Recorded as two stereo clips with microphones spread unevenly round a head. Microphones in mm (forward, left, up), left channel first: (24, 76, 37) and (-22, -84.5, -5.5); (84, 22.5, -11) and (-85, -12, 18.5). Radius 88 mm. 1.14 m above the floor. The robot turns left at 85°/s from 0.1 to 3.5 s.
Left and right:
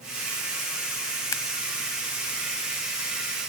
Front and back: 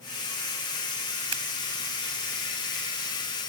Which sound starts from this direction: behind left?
Scissors, at 1.3 s.